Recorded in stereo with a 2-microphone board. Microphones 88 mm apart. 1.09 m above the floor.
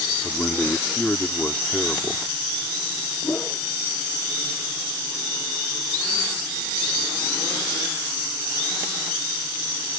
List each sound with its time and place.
0.2 s a man speaking: 10° left (ahead or behind)
3.2 s a whoosh: 20° left (ahead or behind)